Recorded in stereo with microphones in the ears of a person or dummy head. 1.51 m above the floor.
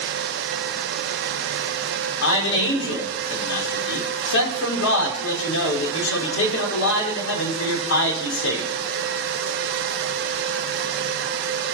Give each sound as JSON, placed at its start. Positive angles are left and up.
{"t": 2.2, "sound": "a man speaking", "side_deg": 65, "distance_m": 5.0}